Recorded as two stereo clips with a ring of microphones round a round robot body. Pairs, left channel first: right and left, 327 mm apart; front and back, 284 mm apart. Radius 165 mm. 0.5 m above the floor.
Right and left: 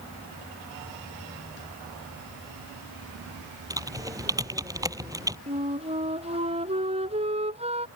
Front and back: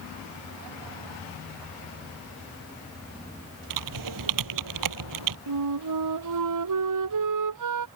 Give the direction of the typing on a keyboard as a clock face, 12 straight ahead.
6 o'clock.